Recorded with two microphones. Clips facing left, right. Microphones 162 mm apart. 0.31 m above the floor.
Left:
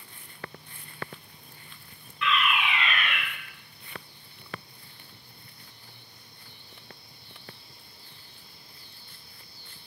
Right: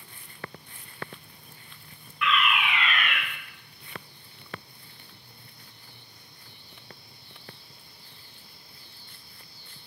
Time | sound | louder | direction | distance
2.2 | a fire alarm | right 1 dB | 30° left (ahead or behind) | 2.5 m